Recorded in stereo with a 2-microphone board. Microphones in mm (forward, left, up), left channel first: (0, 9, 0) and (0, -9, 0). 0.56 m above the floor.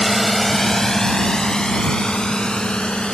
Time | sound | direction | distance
0.0 | a drone | 5° left (ahead or behind) | ?